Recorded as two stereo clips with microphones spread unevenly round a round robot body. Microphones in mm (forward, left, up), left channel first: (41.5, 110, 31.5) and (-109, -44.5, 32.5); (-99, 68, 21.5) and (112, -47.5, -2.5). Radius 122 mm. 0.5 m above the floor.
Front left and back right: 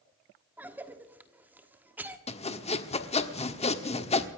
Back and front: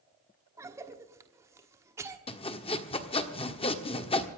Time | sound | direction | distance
0.6 | a cough | 65° right | 1.3 m
2.3 | sawing | 90° left | 1.4 m